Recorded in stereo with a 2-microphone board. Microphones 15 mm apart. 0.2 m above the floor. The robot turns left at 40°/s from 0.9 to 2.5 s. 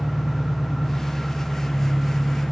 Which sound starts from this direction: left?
An engine running, at 0.0 s.